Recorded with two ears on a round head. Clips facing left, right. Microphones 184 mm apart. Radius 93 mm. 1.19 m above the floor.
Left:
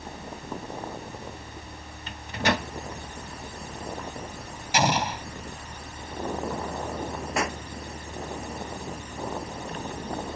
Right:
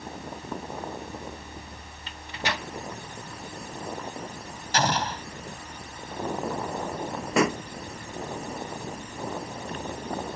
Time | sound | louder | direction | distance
2.1 | a microwave | left 6 dB | 40° left (ahead or behind) | ?
4.7 | an explosion | left 2 dB | 10° left (ahead or behind) | ?
7.4 | a pop | right 7 dB | 70° right (ahead or behind) | ?